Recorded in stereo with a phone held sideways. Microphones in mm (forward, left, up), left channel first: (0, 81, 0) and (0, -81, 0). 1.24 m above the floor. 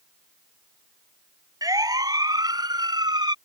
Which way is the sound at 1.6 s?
25° right (ahead or behind).